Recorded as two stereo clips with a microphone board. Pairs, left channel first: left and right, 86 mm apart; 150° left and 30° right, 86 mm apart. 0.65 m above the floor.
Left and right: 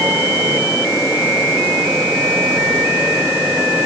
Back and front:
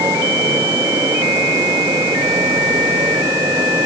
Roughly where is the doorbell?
No doorbell in this recording.